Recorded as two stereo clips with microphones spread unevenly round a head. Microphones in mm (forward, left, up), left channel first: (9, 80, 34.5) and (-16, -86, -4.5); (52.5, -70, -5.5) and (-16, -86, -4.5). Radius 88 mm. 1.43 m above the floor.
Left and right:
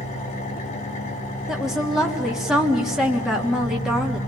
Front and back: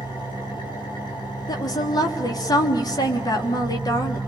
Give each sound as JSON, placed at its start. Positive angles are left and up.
{"t": 0.0, "sound": "an engine running", "azimuth_deg": 30, "distance_m": 5.5}
{"t": 1.5, "sound": "a woman speaking", "azimuth_deg": -10, "distance_m": 3.0}